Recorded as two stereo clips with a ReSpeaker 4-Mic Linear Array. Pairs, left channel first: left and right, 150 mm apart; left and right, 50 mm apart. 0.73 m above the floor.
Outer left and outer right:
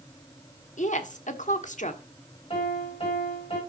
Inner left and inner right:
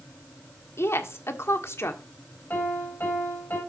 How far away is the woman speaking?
About 1.4 m.